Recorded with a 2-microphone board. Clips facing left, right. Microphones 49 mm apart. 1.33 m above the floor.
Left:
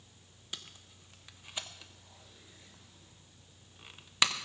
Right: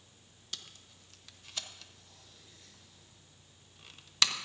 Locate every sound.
0.5 s tape being pulled: 15° left (ahead or behind), 0.9 m